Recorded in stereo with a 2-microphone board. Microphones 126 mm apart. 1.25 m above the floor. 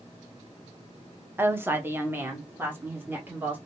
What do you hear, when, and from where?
1.4 s a woman speaking: 15° right (ahead or behind), 0.5 m